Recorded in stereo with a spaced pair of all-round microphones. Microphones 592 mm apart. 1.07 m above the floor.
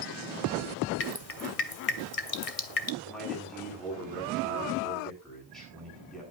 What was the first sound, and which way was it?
Dripping, 70° left (ahead or behind).